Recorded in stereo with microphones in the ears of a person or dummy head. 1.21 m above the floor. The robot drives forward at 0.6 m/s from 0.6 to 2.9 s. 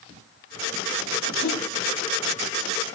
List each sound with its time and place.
1.4 s a whoosh: 70° left (ahead or behind), 2.5 m; by 1.6 s 75° left (ahead or behind), 2.5 m